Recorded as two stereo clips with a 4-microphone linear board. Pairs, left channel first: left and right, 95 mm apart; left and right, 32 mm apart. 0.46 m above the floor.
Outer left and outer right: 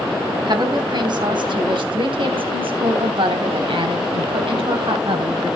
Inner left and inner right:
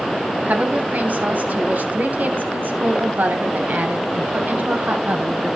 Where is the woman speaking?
50° right (ahead or behind), 3.5 m; by 5.6 s 65° right (ahead or behind), 3.5 m.